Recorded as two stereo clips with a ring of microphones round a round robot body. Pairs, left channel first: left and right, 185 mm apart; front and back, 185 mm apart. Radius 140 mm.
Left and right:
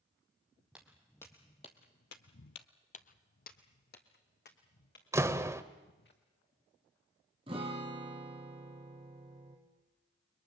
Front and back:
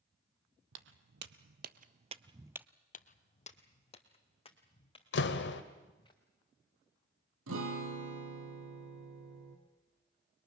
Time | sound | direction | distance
0.7 | footsteps | 175° right | 1.0 m
2.9 | footsteps | 45° left | 1.0 m
5.1 | a door slam | 15° right | 1.3 m
7.5 | a guitar | 160° right | 2.5 m